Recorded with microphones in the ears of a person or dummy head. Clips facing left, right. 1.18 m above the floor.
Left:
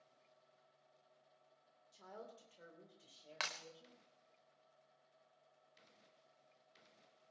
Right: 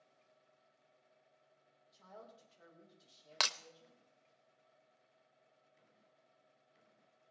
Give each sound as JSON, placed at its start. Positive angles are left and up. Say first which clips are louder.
{"t": 1.9, "sound": "a woman speaking", "louder": "left 2 dB", "side_deg": 55, "distance_m": 3.5}
{"t": 3.4, "sound": "breaking glass", "louder": "right 6 dB", "side_deg": -55, "distance_m": 0.6}